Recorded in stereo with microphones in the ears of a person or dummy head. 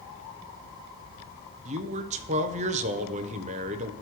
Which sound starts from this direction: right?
A man speaking, at 1.6 s.